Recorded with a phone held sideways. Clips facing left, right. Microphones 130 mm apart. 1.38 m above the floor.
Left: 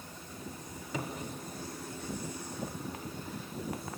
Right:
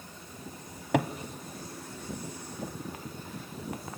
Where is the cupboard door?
70° right (ahead or behind), 0.7 m.